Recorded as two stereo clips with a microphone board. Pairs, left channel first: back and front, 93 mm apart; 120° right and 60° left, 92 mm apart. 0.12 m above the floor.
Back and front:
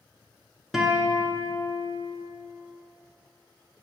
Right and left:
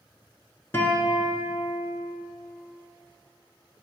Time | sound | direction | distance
0.7 | a guitar | 90° right | 1.0 m